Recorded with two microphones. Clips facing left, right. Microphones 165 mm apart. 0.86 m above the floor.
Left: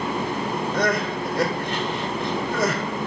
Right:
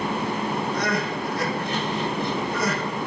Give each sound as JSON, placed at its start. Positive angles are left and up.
{"t": 0.7, "sound": "crying", "side_deg": 65, "distance_m": 1.1}